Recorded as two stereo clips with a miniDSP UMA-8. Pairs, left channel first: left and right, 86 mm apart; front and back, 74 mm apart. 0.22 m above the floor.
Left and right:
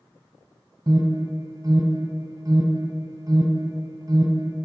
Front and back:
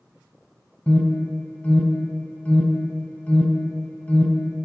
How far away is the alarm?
About 1.3 m.